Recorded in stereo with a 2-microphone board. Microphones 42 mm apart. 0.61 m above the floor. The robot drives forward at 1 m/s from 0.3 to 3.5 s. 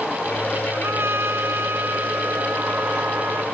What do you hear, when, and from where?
0.7 s a trumpet: 85° right; by 3.4 s 55° right (ahead or behind)